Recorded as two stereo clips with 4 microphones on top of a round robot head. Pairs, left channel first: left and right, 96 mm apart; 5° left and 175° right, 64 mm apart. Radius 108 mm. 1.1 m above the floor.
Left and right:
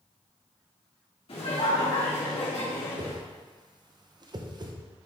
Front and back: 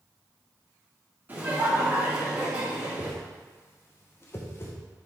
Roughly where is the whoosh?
Ahead right.